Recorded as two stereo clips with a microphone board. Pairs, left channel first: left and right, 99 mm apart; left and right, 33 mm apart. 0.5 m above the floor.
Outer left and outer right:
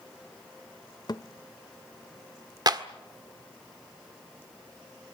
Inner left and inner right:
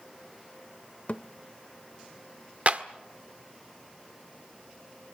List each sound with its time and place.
1.1 s a thud: 45° left (ahead or behind), 0.6 m
2.7 s a clap: 45° right (ahead or behind), 1.4 m